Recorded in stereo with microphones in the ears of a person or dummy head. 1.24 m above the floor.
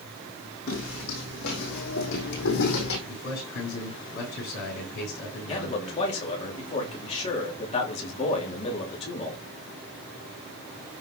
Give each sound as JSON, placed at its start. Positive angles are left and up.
{"t": 0.7, "sound": "footsteps", "side_deg": 55, "distance_m": 4.5}
{"t": 3.1, "sound": "a man speaking", "side_deg": 60, "distance_m": 7.0}
{"t": 5.5, "sound": "a man speaking", "side_deg": 30, "distance_m": 3.0}